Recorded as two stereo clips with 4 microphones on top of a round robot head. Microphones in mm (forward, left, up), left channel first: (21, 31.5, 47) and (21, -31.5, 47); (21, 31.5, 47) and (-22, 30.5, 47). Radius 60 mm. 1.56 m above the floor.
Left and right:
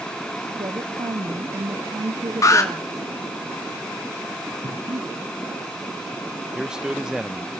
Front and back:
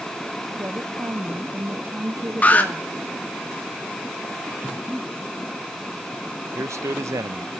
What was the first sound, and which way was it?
A woman speaking, 130° right.